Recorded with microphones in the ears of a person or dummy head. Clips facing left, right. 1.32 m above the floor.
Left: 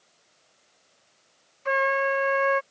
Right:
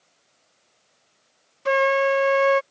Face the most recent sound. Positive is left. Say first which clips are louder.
# right 6 dB
turn(degrees=-40)  # may be behind; listen again after turning